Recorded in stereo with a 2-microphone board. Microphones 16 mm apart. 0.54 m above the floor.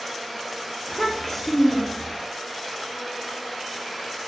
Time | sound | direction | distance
0.9 | a child speaking | 25° left (ahead or behind) | 0.6 m